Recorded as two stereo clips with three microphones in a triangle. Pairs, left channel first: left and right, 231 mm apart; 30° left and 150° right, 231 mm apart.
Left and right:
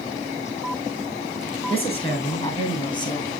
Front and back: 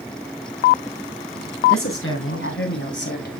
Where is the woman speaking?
30° left, 4 m; by 3.3 s 25° left, 2.0 m.